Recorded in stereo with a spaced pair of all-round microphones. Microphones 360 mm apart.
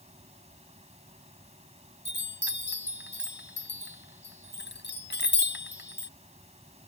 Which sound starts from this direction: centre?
A fan, at 0.0 s.